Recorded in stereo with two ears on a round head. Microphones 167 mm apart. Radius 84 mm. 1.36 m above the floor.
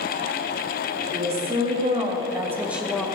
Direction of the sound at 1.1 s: 35° right (ahead or behind).